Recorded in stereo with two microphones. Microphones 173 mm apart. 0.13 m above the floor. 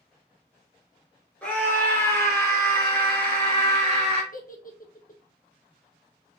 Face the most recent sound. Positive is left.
turn(degrees=55)  # may be behind; listen again after turning